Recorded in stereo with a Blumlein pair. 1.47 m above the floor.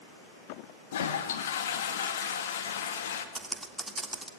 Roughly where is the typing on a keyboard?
Ahead.